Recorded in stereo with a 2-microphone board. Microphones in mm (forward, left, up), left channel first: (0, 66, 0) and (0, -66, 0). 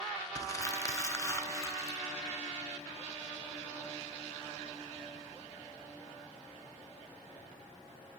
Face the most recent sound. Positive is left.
turn(degrees=25)  # may be behind; listen again after turning